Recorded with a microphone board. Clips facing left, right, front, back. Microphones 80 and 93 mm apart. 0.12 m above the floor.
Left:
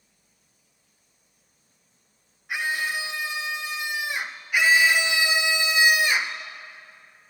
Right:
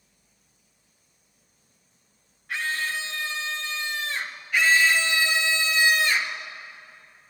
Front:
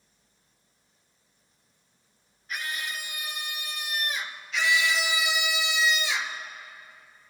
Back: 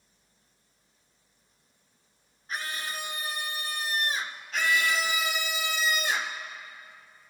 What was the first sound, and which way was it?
A scream, 155° left.